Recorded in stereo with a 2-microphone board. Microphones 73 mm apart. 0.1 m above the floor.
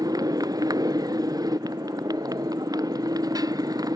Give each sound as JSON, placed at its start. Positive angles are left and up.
{"t": 0.0, "sound": "a motorcycle", "side_deg": -55}